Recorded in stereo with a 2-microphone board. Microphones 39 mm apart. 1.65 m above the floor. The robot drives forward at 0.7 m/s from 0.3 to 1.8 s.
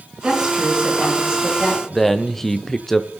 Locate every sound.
0.2 s a woman speaking: 20° right (ahead or behind), 7 m; by 1.8 s 15° right (ahead or behind), 8 m
1.9 s a man speaking: 10° left (ahead or behind), 0.7 m